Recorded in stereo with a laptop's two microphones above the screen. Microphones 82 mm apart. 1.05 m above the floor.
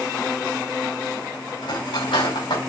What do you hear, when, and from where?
1.6 s cutlery clinking: 90° left, 4.5 m